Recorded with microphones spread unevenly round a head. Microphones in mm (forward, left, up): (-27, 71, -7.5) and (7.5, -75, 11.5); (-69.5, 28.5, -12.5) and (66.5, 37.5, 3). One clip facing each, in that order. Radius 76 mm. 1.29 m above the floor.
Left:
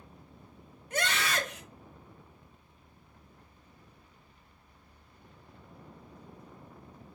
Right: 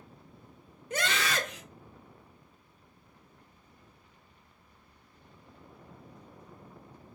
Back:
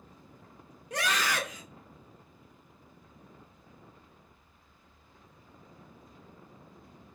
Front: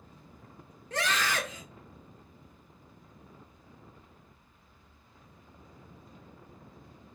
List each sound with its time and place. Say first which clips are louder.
0.9 s a scream: right 1 dB, even; 100° right, 1.2 m